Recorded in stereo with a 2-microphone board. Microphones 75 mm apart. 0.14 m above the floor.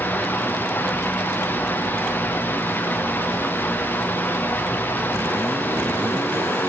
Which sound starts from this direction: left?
Running water, at 0.0 s.